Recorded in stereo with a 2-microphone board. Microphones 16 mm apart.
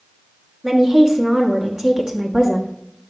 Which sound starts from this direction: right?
A woman speaking, at 0.6 s.